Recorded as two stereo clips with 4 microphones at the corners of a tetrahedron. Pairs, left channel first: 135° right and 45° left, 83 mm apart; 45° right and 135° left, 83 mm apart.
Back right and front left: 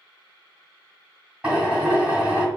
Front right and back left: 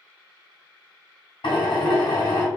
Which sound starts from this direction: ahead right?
A drill, at 1.4 s.